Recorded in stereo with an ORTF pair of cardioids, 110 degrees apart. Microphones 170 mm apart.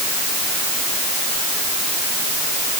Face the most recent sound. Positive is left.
No sound to turn to.